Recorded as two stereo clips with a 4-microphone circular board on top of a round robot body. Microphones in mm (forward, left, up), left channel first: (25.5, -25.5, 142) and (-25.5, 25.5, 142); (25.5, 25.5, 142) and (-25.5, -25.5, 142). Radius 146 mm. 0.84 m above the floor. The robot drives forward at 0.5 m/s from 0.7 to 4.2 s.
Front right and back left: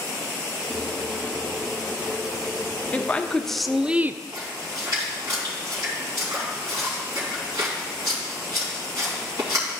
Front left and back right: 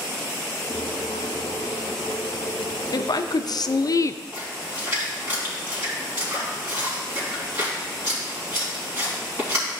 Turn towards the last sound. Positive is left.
turn(degrees=175)